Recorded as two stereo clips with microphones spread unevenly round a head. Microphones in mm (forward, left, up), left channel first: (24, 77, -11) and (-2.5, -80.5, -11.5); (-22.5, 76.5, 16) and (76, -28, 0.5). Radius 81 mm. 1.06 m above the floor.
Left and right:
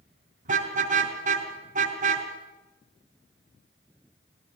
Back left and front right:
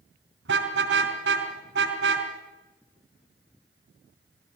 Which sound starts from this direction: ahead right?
A car horn, at 0.5 s.